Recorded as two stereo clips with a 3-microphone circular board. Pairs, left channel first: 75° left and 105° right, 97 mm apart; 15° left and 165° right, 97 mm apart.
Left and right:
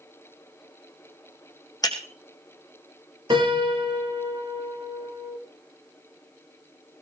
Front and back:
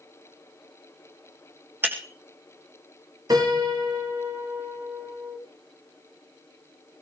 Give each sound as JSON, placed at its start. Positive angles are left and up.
{"t": 1.8, "sound": "breaking glass", "azimuth_deg": 125, "distance_m": 2.0}
{"t": 3.3, "sound": "a piano", "azimuth_deg": -125, "distance_m": 3.0}